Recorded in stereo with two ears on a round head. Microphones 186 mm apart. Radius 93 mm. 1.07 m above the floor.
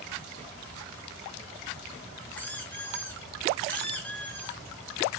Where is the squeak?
10° left (ahead or behind), 0.7 m.